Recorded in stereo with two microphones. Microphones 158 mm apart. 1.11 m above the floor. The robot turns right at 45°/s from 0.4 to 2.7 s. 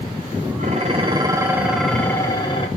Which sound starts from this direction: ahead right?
Dishes clattering, at 0.6 s.